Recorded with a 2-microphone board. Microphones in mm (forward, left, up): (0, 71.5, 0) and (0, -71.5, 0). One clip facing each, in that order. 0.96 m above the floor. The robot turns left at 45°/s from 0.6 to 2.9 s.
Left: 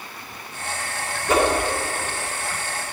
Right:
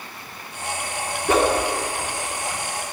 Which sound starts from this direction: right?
A whoosh, at 1.3 s.